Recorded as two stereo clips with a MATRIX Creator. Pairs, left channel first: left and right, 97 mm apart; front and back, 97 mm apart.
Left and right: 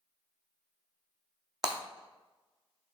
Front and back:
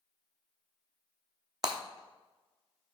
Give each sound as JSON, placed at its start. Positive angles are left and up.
{"t": 1.6, "sound": "breaking glass", "azimuth_deg": -135, "distance_m": 0.9}